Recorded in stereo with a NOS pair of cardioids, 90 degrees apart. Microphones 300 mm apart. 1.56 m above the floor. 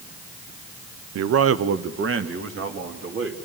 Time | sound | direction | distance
1.1 | a man speaking | 60° right | 0.9 m